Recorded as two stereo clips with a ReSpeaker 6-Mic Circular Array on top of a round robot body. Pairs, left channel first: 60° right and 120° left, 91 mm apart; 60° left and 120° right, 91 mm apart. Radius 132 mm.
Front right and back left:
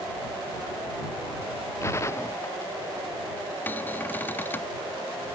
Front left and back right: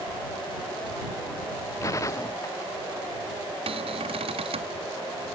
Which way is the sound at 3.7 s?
130° right.